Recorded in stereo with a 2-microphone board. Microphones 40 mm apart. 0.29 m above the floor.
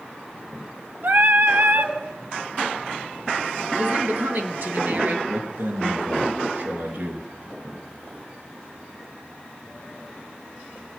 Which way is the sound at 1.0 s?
60° right (ahead or behind).